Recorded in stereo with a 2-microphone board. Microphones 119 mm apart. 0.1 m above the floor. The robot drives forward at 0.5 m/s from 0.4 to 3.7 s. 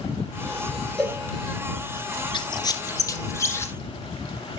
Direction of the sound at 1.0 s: 5° left (ahead or behind).